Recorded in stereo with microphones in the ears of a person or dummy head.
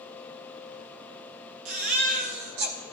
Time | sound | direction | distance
1.6 | a baby crying | 40° right (ahead or behind) | 0.7 m